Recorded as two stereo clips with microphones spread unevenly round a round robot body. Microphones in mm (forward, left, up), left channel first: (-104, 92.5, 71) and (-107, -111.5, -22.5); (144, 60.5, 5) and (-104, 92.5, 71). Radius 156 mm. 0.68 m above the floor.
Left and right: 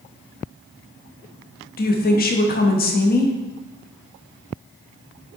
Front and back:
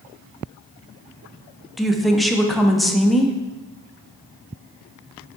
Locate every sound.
1.8 s a woman speaking: 40° left, 1.2 m